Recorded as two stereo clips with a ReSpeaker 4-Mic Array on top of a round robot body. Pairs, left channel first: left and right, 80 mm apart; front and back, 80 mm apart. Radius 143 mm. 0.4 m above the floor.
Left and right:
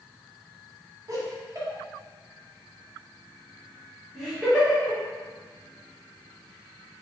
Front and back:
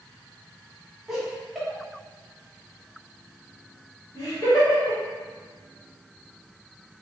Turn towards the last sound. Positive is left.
turn(degrees=10)